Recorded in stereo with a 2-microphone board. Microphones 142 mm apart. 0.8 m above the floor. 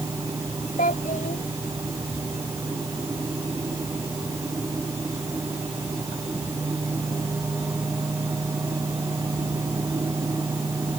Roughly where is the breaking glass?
No breaking glass in this recording.